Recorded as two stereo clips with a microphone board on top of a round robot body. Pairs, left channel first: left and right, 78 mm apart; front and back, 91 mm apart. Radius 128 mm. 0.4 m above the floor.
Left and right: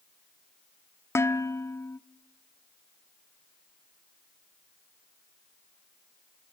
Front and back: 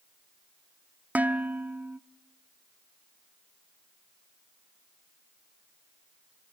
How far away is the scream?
No scream in this recording.